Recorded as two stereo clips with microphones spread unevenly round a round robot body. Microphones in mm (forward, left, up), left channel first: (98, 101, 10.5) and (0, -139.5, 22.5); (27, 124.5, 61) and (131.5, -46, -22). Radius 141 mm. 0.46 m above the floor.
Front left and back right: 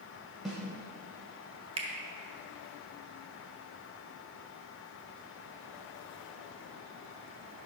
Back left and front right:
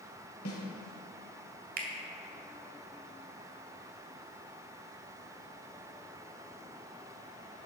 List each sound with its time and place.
0.5 s a snare drum: 160° left, 1.6 m
1.8 s a finger snap: 45° right, 1.7 m